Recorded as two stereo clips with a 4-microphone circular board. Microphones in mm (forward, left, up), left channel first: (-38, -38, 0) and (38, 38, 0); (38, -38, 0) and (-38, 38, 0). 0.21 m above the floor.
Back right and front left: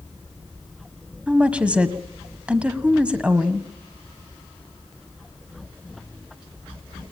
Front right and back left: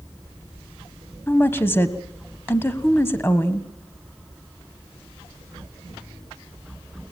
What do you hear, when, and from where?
1.3 s a woman speaking: 15° right, 1.3 m